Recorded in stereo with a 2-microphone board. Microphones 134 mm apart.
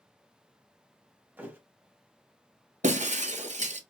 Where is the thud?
15° right (ahead or behind), 0.7 m.